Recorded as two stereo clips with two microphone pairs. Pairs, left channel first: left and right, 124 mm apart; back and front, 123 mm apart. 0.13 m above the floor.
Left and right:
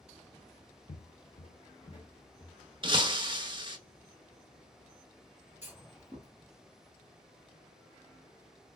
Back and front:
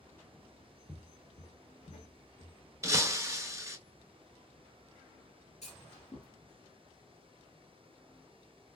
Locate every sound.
0.9 s footsteps: 90° left, 0.5 m; by 2.6 s 150° left, 1.2 m
2.8 s breaking glass: 55° right, 0.5 m
5.6 s a clunk: 160° right, 2 m